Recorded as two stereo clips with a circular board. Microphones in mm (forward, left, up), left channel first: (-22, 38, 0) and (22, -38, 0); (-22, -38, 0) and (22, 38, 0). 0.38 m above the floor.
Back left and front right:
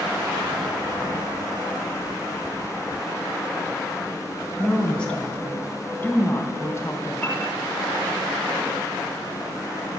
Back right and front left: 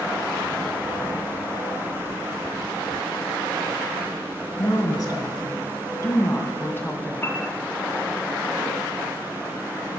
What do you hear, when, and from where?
4.6 s a woman speaking: 155° right, 3 m; by 7.1 s 170° left, 2.5 m
7.2 s a piano: 170° right, 3.5 m